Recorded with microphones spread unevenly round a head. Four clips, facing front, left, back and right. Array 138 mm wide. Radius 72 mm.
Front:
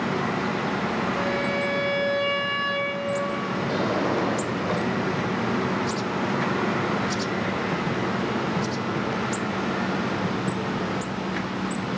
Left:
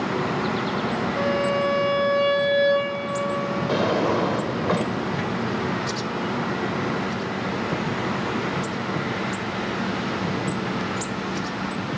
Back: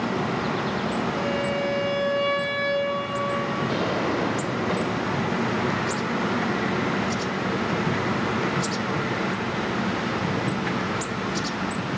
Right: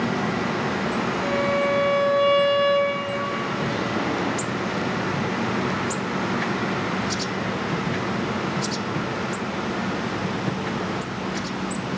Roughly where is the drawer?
Left.